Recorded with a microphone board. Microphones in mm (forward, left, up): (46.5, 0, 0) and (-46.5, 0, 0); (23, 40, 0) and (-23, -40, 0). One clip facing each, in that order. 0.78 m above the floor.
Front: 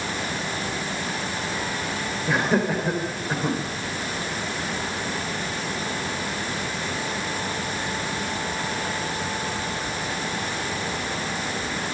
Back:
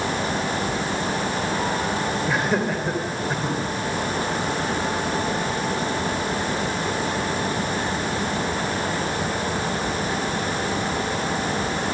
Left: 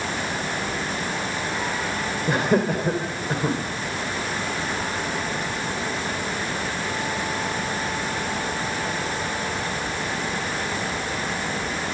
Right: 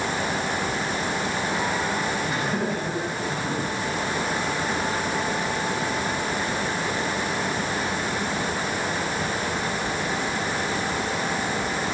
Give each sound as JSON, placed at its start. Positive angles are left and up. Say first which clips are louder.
{"t": 2.3, "sound": "laughter", "louder": "front 4 dB, left 5 dB", "azimuth_deg": 90, "distance_m": 3.5}